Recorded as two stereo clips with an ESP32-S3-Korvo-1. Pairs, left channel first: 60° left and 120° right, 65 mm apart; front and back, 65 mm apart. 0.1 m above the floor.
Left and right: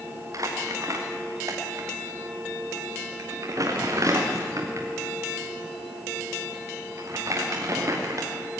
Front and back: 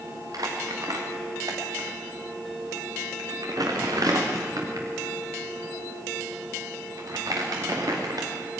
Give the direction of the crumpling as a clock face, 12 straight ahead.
5 o'clock.